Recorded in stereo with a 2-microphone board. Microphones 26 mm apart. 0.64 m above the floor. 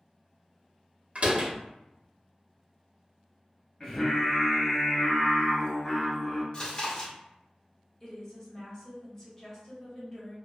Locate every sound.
1.1 s a door slam: 55° right (ahead or behind), 0.7 m
3.8 s singing: 25° left (ahead or behind), 1.5 m
6.5 s chewing: 30° left (ahead or behind), 0.9 m
8.0 s a woman speaking: 15° left (ahead or behind), 1.2 m